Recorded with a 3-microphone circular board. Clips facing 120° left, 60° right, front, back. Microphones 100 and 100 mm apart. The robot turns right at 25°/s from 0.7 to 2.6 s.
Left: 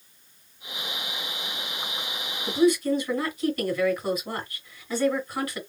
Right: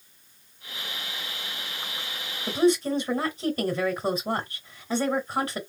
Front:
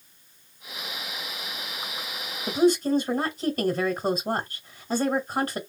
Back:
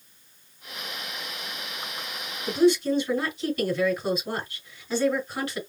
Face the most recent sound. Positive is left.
turn(degrees=-10)